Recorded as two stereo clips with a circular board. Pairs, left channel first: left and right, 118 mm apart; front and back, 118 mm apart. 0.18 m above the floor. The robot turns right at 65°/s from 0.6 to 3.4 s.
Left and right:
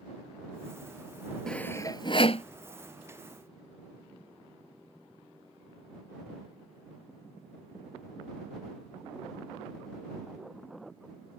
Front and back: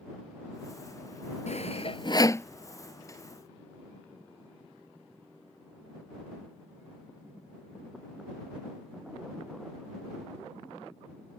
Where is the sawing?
5° left; by 2.5 s 70° left.